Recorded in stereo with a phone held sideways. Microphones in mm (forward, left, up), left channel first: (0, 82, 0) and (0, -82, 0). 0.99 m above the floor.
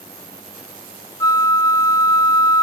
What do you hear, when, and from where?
1.2 s a flute: 20° left (ahead or behind), 0.6 m